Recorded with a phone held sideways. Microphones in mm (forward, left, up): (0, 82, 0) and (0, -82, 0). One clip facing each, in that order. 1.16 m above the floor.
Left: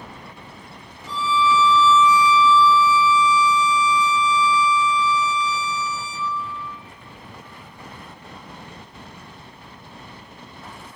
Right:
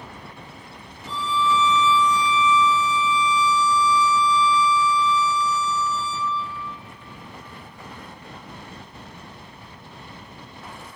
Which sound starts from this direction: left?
A violin, at 1.1 s.